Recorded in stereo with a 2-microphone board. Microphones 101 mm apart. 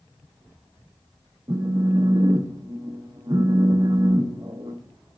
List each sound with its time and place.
1.5 s a phone buzzing: 35° right (ahead or behind), 0.6 m